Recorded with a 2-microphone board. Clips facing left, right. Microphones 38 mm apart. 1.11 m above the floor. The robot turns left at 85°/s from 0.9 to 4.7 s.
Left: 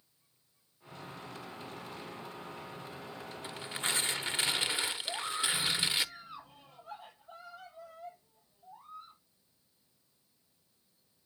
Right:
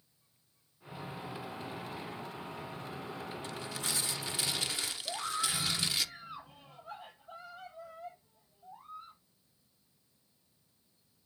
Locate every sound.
3.4 s tearing paper: 150° left, 0.7 m; by 6.0 s 40° left, 0.7 m
5.0 s a scream: 20° right (ahead or behind), 6.5 m